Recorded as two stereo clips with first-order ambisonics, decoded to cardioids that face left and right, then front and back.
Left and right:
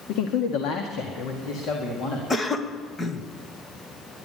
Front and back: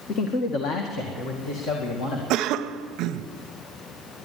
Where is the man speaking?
60° left, 0.9 m; by 2.2 s 40° left, 2.5 m.